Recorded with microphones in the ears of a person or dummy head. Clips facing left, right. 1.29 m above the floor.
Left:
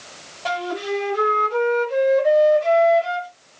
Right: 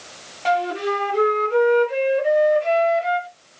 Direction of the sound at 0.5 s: 30° right (ahead or behind).